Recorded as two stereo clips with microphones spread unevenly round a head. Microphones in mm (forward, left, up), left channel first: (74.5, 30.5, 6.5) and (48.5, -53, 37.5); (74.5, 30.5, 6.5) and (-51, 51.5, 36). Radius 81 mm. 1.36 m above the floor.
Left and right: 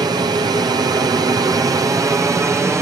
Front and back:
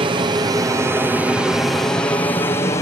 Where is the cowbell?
No cowbell in this recording.